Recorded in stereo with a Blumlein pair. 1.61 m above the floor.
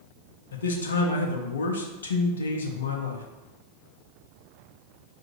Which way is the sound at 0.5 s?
65° left.